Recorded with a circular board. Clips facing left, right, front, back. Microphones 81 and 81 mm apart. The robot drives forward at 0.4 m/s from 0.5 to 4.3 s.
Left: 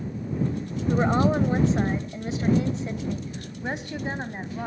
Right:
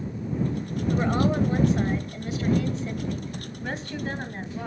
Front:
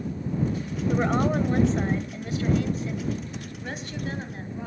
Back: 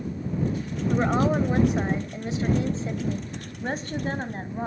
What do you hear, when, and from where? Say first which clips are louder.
0.9 s a woman speaking: left 2 dB, back 1 dB; 95° left, 1.4 m; by 4.7 s 155° left, 2.0 m